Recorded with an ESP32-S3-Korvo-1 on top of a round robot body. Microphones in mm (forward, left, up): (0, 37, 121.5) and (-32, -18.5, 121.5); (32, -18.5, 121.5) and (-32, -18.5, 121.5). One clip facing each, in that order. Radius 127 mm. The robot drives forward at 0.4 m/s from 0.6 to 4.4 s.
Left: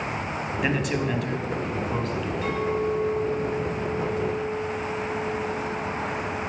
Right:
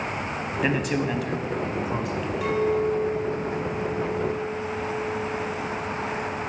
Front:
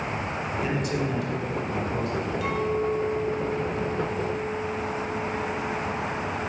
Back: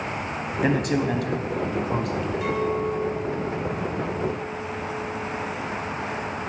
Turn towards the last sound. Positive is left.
turn(degrees=-135)